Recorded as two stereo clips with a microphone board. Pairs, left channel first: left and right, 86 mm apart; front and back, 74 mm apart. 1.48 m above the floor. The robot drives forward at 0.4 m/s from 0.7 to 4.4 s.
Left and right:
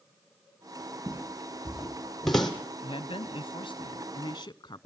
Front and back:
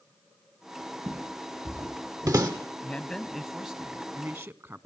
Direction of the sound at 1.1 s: 155° right.